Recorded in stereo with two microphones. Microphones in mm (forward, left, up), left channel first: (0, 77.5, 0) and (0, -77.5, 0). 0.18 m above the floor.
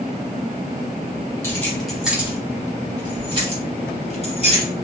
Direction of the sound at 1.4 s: 15° left (ahead or behind).